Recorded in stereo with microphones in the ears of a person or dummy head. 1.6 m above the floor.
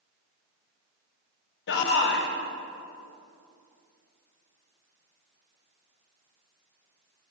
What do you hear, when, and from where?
1.7 s a shout: 65° left (ahead or behind), 1.0 m